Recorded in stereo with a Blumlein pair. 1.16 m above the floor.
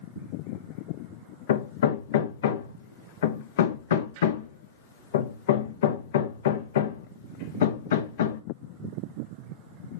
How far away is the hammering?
About 1.0 m.